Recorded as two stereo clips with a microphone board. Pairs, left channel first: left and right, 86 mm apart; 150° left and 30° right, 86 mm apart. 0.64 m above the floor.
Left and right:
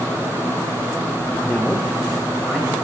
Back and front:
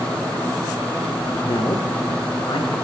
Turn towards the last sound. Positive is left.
turn(degrees=180)